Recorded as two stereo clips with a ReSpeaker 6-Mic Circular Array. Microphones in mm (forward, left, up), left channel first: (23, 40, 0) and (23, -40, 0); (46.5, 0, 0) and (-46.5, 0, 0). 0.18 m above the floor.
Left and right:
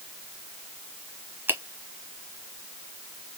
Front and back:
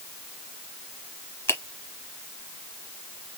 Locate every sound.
1.5 s a finger snap: 45° right, 1.0 m